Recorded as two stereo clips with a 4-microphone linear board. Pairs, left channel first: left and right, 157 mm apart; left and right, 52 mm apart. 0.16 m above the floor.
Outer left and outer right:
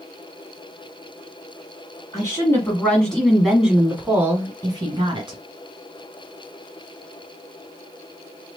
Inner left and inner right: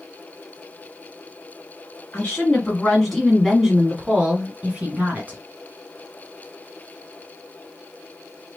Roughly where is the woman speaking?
Left.